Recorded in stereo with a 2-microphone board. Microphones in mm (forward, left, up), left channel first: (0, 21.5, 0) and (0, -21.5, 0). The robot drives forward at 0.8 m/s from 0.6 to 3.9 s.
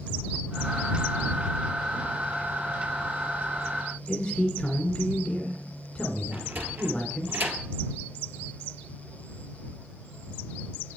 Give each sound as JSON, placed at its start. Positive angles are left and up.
{"t": 4.1, "sound": "a man speaking", "side_deg": 20, "distance_m": 1.4}
{"t": 6.3, "sound": "a sliding door", "side_deg": -55, "distance_m": 1.6}